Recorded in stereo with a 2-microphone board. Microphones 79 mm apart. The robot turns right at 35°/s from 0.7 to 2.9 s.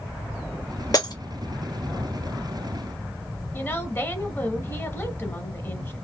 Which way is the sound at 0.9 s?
45° left (ahead or behind).